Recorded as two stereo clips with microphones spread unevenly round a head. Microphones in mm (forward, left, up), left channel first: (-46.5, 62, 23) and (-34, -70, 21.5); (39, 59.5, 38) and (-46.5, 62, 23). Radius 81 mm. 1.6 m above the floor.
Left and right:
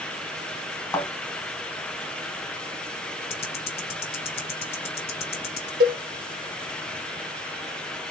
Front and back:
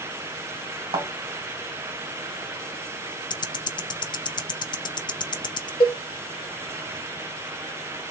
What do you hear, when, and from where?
0.9 s a thud: 155° left, 2.5 m
3.3 s ticking: 40° left, 0.6 m
5.8 s a cowbell: 50° right, 1.0 m